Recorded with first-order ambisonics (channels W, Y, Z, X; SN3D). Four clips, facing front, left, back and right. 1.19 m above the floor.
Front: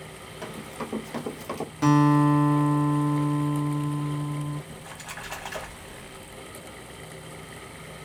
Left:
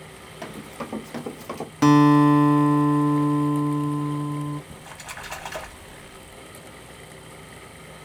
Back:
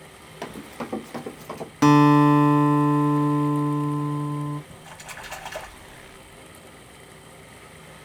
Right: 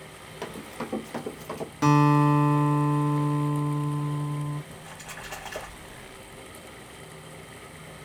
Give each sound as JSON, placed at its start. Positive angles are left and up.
{"t": 0.4, "sound": "running footsteps", "azimuth_deg": -160, "distance_m": 1.3}
{"t": 1.8, "sound": "a guitar", "azimuth_deg": 145, "distance_m": 0.6}
{"t": 4.7, "sound": "a splash", "azimuth_deg": 80, "distance_m": 1.1}